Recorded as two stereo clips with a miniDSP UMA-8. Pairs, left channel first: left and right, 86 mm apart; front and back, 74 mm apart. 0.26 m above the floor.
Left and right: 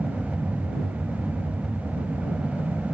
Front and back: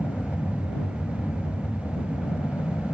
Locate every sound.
0.0 s an aircraft: straight ahead